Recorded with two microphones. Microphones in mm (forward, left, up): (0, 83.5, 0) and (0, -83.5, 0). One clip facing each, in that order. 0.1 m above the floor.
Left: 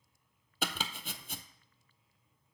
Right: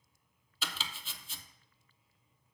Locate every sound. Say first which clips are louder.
0.6 s chopping: left 6 dB; 65° left (ahead or behind), 0.7 m